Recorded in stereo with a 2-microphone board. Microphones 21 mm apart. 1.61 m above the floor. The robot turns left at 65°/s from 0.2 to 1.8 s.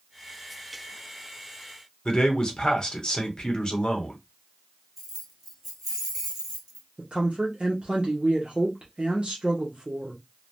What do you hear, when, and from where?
2.0 s a man speaking: 30° left (ahead or behind), 1.0 m
5.0 s keys jangling: 15° right (ahead or behind), 1.4 m
7.0 s a woman speaking: 50° right (ahead or behind), 0.8 m